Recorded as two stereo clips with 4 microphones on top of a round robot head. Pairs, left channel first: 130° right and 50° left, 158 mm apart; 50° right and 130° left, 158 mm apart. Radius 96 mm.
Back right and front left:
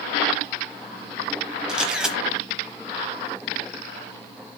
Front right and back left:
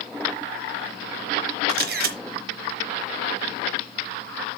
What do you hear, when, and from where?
1.7 s a camera shutter: 135° left, 1.0 m